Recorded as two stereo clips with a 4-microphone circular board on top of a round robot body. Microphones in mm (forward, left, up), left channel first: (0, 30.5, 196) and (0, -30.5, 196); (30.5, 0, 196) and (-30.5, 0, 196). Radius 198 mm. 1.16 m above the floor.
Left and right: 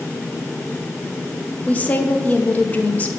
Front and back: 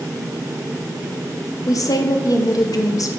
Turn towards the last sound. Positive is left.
turn(degrees=25)